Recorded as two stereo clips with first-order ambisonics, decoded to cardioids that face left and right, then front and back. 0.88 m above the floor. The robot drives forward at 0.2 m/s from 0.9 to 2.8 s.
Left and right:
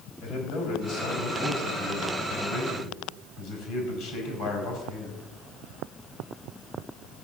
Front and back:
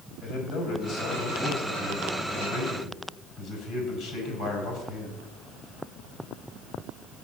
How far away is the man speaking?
About 6 m.